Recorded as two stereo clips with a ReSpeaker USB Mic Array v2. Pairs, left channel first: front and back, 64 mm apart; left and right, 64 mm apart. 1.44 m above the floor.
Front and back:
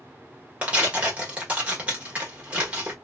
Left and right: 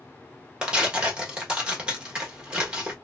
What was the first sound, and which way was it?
Tearing paper, 145° right.